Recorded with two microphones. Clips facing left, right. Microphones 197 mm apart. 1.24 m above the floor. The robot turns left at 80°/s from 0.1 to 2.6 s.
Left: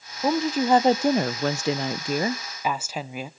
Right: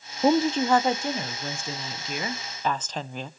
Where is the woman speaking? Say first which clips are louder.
Right 1 dB; 160° right, 0.5 m; by 3.3 s 10° left, 0.5 m.